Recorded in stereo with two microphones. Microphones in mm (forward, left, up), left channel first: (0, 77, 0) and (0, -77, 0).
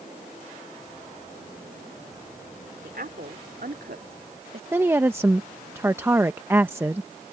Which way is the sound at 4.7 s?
15° right (ahead or behind).